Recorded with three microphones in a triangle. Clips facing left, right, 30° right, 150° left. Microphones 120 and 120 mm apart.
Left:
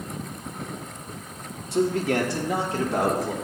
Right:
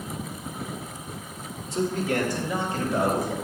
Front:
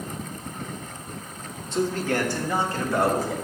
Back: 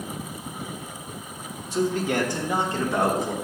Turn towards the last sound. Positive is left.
turn(degrees=85)